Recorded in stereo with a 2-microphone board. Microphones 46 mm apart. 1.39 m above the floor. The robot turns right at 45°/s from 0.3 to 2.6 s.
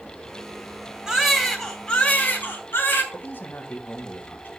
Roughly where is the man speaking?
Left.